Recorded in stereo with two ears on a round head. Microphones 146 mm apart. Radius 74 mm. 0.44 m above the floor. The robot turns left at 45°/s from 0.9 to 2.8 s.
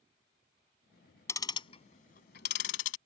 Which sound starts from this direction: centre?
Ticking, at 1.3 s.